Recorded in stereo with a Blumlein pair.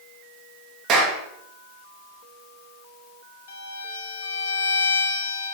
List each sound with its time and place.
0.9 s a clap: 30° right, 1.8 m
3.5 s a violin: 60° left, 1.0 m